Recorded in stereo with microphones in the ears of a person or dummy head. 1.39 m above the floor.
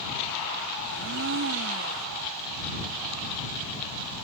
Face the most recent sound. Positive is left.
turn(degrees=-65)  # may be behind; listen again after turning